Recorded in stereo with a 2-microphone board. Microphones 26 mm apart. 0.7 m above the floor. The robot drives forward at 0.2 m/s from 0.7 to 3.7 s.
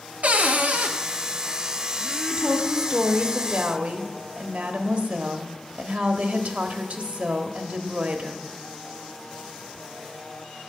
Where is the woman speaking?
55° right (ahead or behind), 1.1 m; by 8.4 s 60° right (ahead or behind), 1.0 m.